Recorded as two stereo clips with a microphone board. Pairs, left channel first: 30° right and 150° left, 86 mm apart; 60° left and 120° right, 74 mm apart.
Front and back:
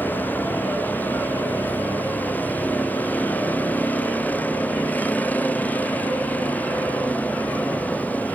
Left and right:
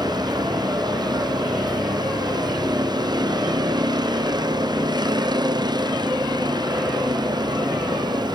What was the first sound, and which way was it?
A vehicle, 100° right.